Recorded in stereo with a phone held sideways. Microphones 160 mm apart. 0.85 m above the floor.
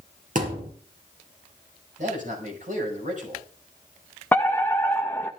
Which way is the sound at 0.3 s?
55° right (ahead or behind).